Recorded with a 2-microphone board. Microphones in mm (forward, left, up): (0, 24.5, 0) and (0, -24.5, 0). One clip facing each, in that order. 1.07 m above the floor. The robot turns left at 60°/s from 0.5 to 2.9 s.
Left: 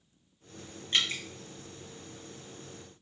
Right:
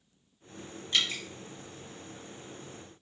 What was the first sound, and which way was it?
Dripping, 30° left (ahead or behind).